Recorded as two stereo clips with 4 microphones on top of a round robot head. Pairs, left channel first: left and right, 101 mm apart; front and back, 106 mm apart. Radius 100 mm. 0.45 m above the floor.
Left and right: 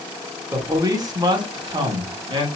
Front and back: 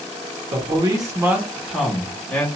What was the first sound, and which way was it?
A man speaking, 145° right.